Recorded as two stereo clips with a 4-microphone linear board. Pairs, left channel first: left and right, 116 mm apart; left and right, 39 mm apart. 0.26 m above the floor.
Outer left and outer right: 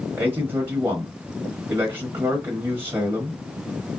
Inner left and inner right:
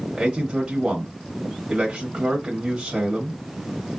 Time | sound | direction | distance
0.1 | a man speaking | 20° right (ahead or behind) | 0.9 m